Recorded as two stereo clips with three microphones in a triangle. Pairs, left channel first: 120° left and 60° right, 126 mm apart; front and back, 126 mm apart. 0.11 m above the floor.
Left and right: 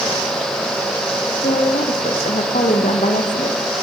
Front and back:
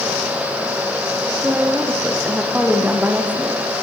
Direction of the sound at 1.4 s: 100° left.